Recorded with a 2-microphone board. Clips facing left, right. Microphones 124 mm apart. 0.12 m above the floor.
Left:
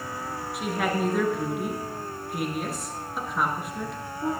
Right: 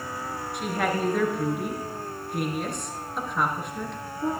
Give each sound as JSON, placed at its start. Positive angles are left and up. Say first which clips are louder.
{"t": 0.5, "sound": "a woman speaking", "louder": "even", "side_deg": 0, "distance_m": 1.7}